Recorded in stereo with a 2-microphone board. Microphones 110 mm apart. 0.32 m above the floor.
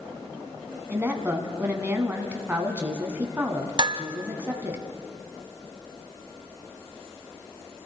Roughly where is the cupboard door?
I don't hear a cupboard door.